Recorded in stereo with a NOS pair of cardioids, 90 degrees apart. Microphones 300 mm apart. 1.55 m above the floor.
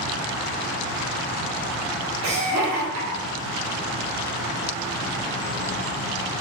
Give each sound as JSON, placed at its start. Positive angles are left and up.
{"t": 2.2, "sound": "laughter", "azimuth_deg": -45, "distance_m": 1.2}